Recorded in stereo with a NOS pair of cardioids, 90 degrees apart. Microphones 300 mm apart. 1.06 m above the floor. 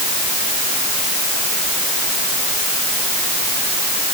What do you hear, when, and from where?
Only background noise.